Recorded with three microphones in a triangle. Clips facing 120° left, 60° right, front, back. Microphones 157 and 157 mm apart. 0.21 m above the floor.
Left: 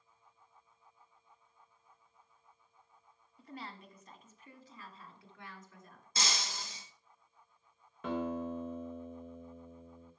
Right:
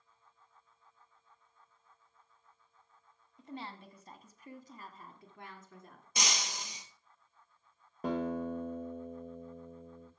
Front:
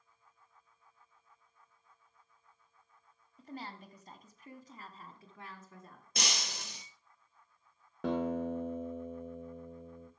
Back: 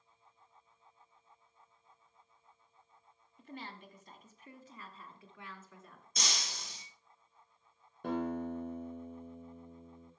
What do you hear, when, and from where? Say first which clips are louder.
3.4 s a woman speaking: right 3 dB, front 2 dB; 5° right, 1.8 m; by 6.0 s 50° right, 3 m
6.2 s breaking glass: right 1 dB, front 2 dB; 15° left, 1.7 m
8.0 s a guitar: right 2 dB, front 3 dB; 5° right, 2.5 m